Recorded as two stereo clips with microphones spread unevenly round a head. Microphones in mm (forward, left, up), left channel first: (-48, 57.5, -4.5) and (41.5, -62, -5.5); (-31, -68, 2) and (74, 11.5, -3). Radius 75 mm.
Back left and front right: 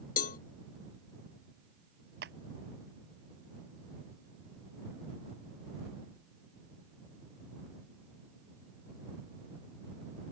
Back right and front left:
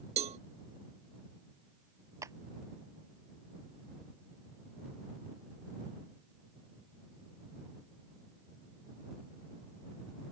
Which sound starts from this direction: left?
A cowbell, at 0.2 s.